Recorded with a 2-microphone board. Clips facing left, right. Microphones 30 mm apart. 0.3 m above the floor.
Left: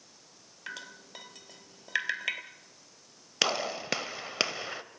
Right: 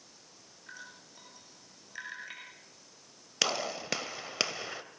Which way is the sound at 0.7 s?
80° left.